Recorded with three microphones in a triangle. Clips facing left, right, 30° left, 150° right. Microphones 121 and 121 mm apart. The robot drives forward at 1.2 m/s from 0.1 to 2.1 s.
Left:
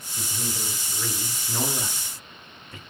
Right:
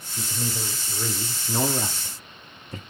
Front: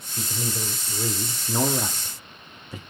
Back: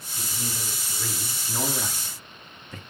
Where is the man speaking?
10° right, 3 m; by 2.8 s 45° right, 1.1 m.